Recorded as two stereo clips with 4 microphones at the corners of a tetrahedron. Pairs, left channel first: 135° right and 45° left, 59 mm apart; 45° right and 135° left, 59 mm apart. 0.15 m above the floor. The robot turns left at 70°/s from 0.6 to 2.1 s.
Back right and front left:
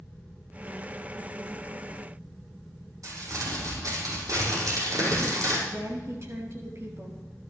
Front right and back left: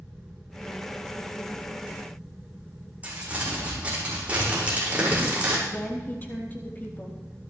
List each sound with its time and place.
3.0 s crumpling: 65° left, 7 m
5.7 s a woman speaking: 10° left, 4 m